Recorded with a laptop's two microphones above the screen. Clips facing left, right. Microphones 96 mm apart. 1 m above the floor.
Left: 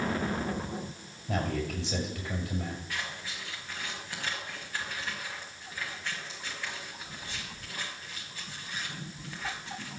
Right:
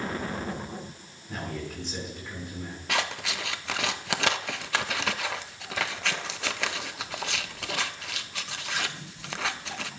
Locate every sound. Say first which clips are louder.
1.3 s a man speaking: left 4 dB; 85° left, 6.5 m
2.9 s scissors: right 8 dB; 75° right (ahead or behind), 0.7 m